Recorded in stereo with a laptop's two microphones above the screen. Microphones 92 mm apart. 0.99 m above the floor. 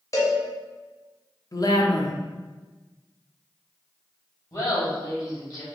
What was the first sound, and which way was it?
A cowbell, 35° left (ahead or behind).